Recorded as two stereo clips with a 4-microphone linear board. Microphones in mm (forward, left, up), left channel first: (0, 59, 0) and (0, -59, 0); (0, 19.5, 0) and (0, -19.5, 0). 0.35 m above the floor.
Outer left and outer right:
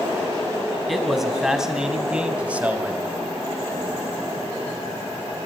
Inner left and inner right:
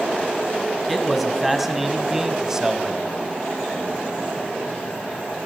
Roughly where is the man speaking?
Centre.